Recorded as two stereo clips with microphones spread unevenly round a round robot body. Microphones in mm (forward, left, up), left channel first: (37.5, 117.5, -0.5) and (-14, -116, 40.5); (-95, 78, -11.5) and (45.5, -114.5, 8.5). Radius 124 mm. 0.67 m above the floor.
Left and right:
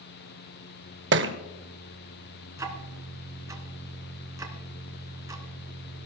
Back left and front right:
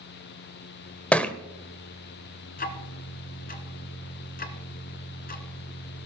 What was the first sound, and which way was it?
A thud, 150° right.